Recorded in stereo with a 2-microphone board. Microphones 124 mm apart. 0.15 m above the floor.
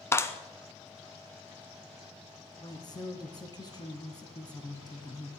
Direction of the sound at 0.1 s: 20° left (ahead or behind).